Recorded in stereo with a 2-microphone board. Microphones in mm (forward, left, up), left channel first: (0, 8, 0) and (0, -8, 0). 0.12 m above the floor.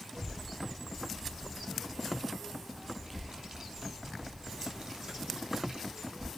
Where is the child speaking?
60° right (ahead or behind), 1.7 m.